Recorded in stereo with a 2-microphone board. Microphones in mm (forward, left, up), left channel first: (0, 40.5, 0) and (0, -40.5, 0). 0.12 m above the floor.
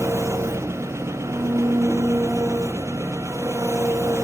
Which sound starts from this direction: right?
An engine running, at 0.0 s.